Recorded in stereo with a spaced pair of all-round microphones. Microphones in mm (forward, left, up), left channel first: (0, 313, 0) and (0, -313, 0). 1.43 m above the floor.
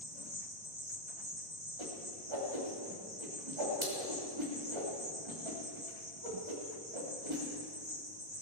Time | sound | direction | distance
0.0 | an insect | 15° left (ahead or behind) | 3 m
1.8 | a whoosh | 50° right (ahead or behind) | 3 m